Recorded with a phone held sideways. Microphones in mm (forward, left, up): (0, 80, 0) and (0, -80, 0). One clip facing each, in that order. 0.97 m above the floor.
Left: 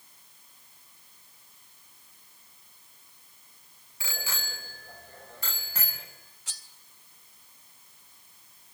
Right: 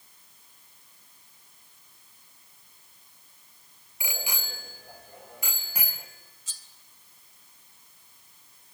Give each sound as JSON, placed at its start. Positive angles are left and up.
{"t": 4.0, "sound": "a bicycle bell", "side_deg": -15, "distance_m": 3.0}
{"t": 6.5, "sound": "cutlery clinking", "side_deg": 70, "distance_m": 1.7}